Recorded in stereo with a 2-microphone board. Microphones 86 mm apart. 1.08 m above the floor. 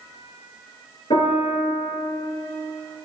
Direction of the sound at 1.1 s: 80° left.